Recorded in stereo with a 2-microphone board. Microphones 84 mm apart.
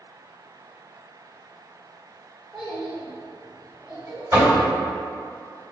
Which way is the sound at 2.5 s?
5° right (ahead or behind).